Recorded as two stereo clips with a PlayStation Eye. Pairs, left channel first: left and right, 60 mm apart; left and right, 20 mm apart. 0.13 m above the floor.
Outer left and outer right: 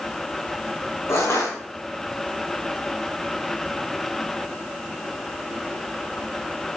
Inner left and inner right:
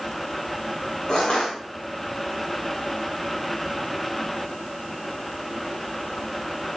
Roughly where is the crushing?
Left.